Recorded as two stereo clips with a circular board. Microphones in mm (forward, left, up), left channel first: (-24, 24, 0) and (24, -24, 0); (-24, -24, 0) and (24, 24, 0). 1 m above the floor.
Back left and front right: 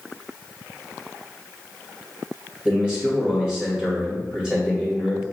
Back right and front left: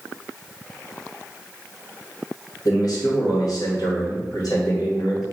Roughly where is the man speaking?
Behind right.